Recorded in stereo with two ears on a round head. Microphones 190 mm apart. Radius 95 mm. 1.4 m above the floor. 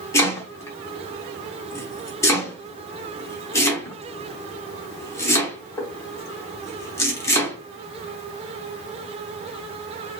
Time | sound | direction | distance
0.1 | chopping | 15° left (ahead or behind) | 1.0 m